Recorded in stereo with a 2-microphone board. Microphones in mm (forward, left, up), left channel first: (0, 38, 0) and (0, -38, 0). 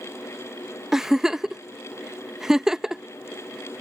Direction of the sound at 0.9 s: 10° right (ahead or behind).